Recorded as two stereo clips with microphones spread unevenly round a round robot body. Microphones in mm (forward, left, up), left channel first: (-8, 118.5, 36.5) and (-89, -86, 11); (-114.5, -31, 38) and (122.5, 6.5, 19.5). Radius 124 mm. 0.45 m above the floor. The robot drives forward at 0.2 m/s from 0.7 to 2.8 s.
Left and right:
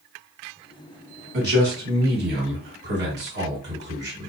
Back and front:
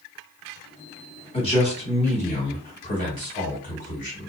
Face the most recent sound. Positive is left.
turn(degrees=-120)